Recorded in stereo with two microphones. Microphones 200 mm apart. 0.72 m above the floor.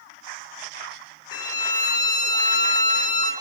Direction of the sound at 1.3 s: 70° right (ahead or behind).